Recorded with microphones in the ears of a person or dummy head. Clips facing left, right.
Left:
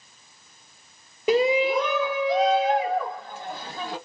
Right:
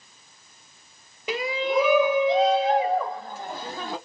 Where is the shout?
45° left (ahead or behind), 0.5 m; by 4.0 s 35° right (ahead or behind), 2.5 m.